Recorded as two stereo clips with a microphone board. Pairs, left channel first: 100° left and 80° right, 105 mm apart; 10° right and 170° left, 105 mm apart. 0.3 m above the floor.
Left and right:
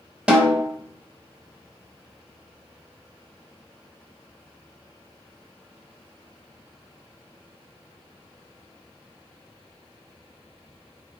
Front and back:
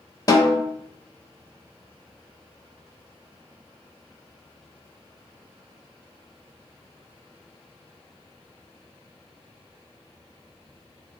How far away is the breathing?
No breathing in this recording.